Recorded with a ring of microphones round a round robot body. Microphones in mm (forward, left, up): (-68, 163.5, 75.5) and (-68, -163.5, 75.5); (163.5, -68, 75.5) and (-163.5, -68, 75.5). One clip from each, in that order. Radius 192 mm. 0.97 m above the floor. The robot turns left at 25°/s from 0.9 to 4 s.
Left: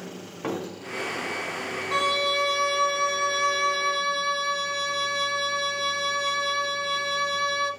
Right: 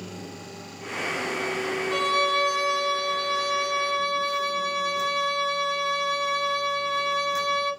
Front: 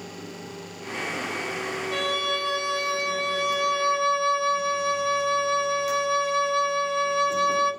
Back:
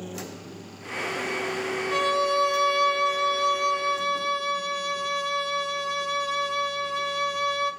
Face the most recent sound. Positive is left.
turn(degrees=100)